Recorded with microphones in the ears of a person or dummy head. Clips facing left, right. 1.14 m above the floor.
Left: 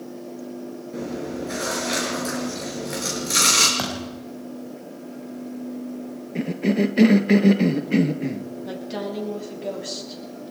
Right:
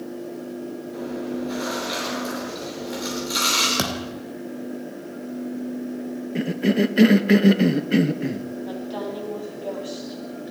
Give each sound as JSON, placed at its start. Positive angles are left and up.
{"t": 0.9, "sound": "chewing", "side_deg": 35, "distance_m": 6.0}
{"t": 3.8, "sound": "a thud", "side_deg": -45, "distance_m": 5.0}
{"t": 6.3, "sound": "a cough", "side_deg": -10, "distance_m": 1.2}
{"t": 8.7, "sound": "a woman speaking", "side_deg": 30, "distance_m": 8.0}